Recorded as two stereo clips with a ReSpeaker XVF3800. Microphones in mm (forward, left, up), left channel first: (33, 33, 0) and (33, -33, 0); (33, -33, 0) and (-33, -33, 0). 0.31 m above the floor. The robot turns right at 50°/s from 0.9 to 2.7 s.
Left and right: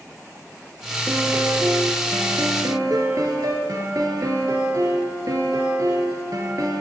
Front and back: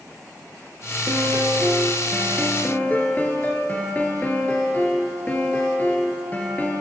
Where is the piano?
145° right, 1.3 m; by 6.8 s 65° right, 1.3 m.